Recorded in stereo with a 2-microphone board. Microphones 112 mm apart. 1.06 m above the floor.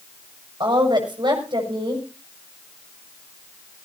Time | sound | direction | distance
0.6 | a woman speaking | 40° right (ahead or behind) | 6 m